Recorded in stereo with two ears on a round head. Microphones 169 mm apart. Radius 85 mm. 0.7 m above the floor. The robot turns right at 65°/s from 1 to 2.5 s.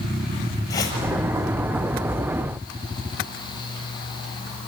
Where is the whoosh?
20° left (ahead or behind), 6 m.